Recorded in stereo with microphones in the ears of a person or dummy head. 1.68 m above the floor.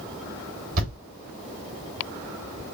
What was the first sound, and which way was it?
A thud, 50° right (ahead or behind).